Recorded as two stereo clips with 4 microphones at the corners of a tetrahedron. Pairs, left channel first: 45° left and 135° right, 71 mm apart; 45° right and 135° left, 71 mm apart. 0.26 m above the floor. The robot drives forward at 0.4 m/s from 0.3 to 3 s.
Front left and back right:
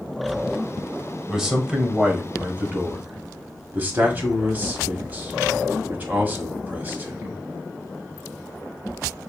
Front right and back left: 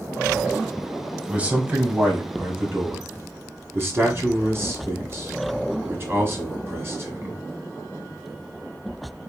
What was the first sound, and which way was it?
A man speaking, 150° left.